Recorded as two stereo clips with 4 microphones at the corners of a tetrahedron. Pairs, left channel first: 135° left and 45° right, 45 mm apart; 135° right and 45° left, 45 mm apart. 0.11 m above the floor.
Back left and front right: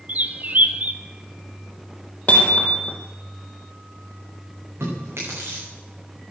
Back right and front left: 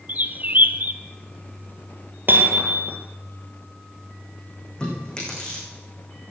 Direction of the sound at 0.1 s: Straight ahead.